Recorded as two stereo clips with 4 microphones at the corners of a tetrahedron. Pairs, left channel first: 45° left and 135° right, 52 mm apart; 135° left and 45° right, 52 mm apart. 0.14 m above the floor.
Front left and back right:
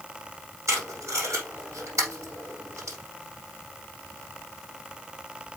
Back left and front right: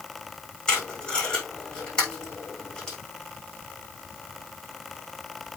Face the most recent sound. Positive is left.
turn(degrees=-155)